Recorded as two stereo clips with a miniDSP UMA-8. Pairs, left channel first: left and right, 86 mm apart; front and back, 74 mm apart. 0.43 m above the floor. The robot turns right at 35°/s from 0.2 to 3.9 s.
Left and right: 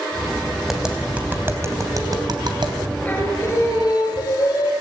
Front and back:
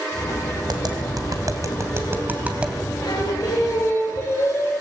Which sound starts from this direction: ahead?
Singing, at 3.0 s.